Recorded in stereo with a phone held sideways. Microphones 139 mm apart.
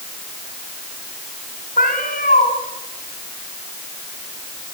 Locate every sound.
1.8 s a cat meowing: 80° left, 4.5 m